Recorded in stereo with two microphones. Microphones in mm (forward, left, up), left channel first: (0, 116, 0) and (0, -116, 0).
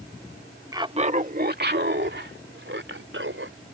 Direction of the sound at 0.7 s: 15° right (ahead or behind).